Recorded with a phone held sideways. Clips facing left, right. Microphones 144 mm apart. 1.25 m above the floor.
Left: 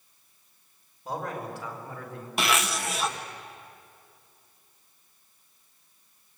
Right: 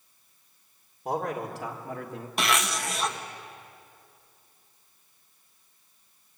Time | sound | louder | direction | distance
1.1 | a man speaking | right 4 dB | 75° right (ahead or behind) | 4.5 m
2.4 | a zipper | left 1 dB | centre (ahead or behind) | 1.3 m